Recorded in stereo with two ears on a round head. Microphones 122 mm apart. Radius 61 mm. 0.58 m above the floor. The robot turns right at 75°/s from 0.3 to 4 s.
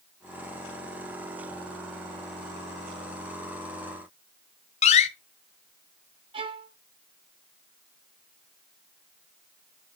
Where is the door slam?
50° left (ahead or behind), 1.2 m.